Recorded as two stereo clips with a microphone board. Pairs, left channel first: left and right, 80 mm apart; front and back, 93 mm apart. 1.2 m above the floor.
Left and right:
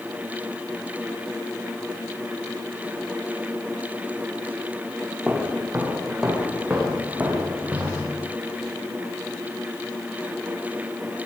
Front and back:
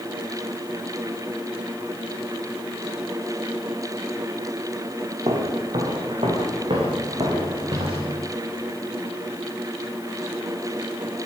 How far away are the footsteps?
About 6 m.